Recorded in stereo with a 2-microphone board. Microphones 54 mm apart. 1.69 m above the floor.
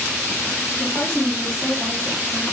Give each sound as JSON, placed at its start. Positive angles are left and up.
{"t": 0.8, "sound": "a woman speaking", "side_deg": 35, "distance_m": 1.7}